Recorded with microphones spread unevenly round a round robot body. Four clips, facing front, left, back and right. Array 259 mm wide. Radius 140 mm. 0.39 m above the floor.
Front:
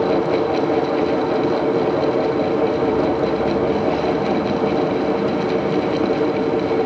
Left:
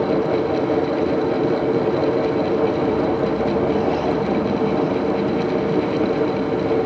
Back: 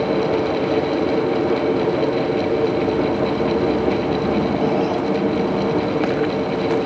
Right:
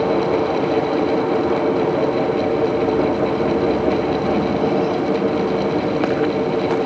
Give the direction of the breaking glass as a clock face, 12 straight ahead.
No breaking glass in this recording.